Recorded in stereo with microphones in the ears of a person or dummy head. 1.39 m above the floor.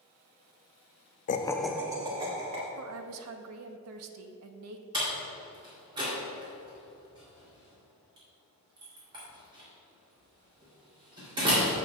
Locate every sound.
1.3 s laughter: 45° left (ahead or behind), 0.5 m; by 2.7 s 30° right (ahead or behind), 1.8 m
2.8 s a woman speaking: 80° right, 0.8 m
4.9 s a door slam: 20° right (ahead or behind), 3 m